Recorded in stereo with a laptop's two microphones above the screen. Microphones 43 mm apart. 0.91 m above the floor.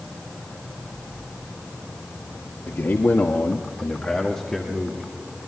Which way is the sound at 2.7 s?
70° left (ahead or behind).